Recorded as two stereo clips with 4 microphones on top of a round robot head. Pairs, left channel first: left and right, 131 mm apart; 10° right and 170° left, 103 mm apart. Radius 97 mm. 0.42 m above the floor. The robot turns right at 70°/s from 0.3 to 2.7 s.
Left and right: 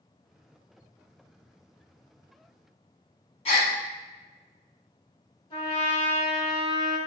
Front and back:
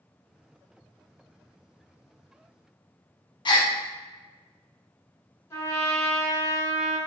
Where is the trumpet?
45° left, 1.7 m.